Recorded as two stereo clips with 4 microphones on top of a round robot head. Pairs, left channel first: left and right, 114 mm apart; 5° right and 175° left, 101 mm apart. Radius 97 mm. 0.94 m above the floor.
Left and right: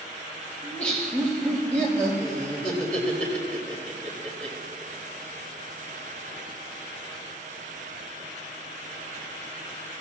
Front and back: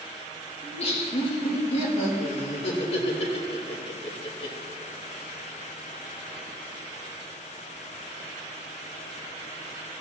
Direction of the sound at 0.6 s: 10° left.